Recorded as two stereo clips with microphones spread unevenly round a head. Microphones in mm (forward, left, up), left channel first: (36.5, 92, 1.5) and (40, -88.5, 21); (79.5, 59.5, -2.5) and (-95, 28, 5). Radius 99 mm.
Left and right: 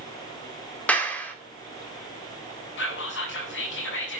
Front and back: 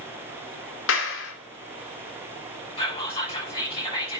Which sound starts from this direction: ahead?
A clap, at 0.9 s.